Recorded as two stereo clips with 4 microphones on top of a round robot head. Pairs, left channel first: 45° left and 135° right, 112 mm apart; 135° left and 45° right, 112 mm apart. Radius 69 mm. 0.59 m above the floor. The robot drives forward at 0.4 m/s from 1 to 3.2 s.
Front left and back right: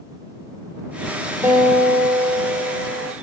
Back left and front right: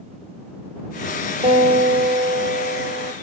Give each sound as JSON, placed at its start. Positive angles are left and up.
{"t": 1.4, "sound": "a guitar", "azimuth_deg": -65, "distance_m": 3.0}